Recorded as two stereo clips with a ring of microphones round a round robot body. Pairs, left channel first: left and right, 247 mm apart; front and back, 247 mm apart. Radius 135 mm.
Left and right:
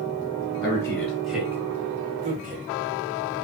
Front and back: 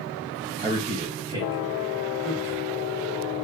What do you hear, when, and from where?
0.6 s a man speaking: 155° left, 1.4 m; by 2.7 s 70° right, 1.4 m